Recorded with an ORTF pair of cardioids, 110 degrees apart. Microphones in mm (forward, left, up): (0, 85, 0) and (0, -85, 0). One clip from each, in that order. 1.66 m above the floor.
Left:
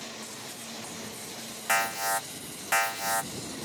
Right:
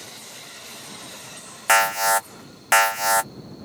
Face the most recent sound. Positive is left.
turn(degrees=-45)